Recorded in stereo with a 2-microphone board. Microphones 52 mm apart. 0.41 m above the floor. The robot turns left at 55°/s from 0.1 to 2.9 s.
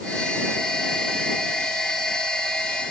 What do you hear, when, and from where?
Only background noise.